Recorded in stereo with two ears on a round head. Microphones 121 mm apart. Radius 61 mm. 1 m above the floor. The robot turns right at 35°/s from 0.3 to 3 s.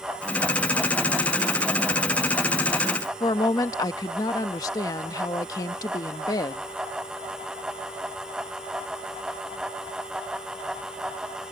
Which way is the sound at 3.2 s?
25° left (ahead or behind).